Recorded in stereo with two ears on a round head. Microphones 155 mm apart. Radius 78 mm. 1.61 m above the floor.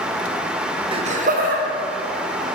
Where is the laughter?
30° right (ahead or behind), 0.7 m; by 2.5 s 65° right (ahead or behind), 2.5 m.